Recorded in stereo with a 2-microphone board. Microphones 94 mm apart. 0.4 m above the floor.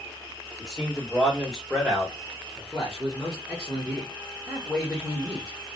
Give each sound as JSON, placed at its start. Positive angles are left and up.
{"t": 0.6, "sound": "a man speaking", "side_deg": -5, "distance_m": 1.8}
{"t": 2.6, "sound": "a man speaking", "side_deg": -5, "distance_m": 1.1}